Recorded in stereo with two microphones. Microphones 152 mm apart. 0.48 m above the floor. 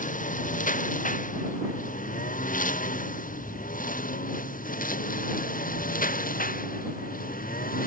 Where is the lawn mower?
60° left (ahead or behind); by 7.9 s 70° left (ahead or behind).